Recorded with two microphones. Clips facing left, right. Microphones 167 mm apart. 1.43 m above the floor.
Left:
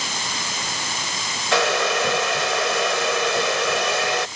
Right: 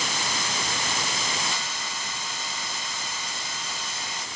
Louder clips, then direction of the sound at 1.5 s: Left 16 dB; 85° left.